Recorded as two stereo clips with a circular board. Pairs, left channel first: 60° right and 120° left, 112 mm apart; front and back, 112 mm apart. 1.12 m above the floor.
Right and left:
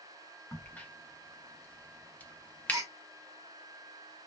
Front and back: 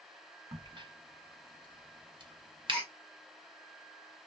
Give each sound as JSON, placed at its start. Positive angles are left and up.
{"t": 0.5, "sound": "a crack", "azimuth_deg": -135, "distance_m": 0.6}
{"t": 2.7, "sound": "a gasp", "azimuth_deg": 80, "distance_m": 0.9}